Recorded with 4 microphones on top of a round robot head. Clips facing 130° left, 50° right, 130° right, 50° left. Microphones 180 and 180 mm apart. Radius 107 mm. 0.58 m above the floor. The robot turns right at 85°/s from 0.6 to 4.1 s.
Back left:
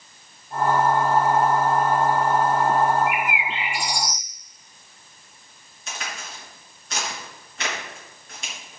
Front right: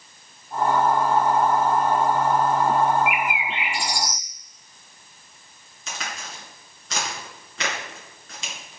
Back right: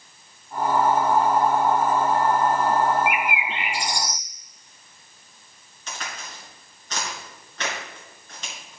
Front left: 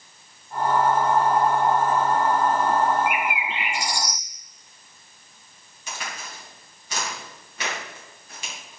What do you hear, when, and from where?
3.1 s a bird: 130° right, 1.9 m; by 4.2 s 40° right, 1.9 m
5.9 s a crack: 30° right, 4 m